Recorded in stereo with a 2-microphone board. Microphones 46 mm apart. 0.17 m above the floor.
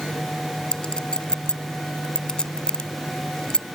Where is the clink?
20° left (ahead or behind).